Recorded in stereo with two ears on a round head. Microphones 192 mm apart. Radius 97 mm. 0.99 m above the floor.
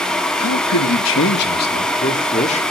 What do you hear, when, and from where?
0.4 s a man speaking: 75° left (ahead or behind), 1.3 m; by 2.6 s 30° left (ahead or behind), 2 m